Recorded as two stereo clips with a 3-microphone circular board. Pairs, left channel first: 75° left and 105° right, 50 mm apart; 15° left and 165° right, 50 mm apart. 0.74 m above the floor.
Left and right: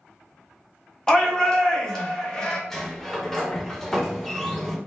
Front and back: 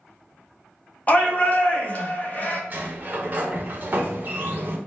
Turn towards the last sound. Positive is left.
turn(degrees=155)